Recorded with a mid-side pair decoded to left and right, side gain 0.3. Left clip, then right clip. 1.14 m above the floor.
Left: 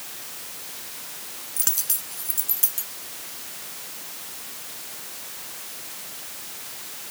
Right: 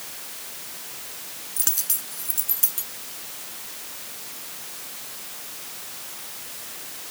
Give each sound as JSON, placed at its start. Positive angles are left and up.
{"t": 1.6, "sound": "a dropped coin", "azimuth_deg": 0}